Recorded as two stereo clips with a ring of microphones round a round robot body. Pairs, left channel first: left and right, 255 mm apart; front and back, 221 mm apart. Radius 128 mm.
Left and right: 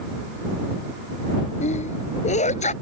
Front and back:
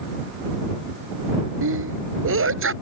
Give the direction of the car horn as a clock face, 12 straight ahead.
No car horn in this recording.